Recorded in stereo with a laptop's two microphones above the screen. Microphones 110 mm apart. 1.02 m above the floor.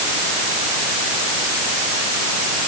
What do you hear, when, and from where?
Only background noise.